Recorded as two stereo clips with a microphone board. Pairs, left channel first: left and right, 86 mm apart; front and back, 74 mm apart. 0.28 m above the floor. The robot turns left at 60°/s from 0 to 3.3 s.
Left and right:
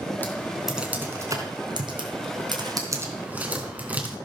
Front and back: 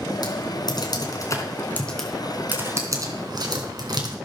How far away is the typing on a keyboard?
About 3.5 m.